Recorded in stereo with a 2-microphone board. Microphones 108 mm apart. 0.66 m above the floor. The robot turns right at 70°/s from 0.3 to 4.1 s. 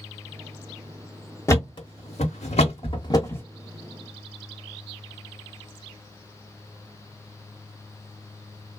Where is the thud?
30° left (ahead or behind), 0.9 m; by 3.5 s 15° left (ahead or behind), 0.9 m.